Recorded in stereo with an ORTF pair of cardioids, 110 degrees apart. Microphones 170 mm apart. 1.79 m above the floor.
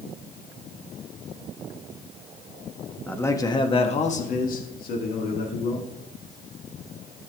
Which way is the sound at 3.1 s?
10° left.